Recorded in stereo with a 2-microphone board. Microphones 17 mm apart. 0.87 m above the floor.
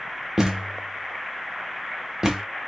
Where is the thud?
25° right (ahead or behind), 0.8 m.